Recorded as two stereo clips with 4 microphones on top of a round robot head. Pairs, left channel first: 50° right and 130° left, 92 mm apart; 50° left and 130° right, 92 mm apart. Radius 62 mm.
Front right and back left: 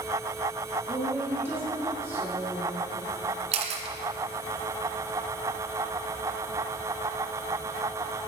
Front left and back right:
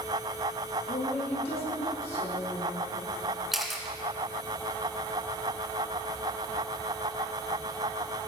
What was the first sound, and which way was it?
A woman speaking, 60° left.